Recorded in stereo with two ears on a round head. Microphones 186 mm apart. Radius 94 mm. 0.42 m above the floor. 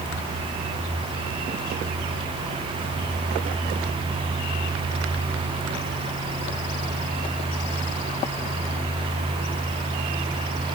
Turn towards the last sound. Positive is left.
No sound to turn to.